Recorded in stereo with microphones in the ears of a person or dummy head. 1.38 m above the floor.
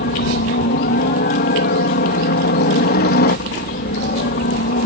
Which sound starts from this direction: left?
A helicopter, at 0.0 s.